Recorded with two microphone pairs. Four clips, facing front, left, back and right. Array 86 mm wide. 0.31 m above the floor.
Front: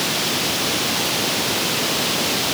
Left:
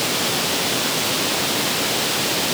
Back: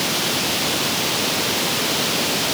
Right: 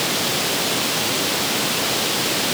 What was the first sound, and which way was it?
Only background noise.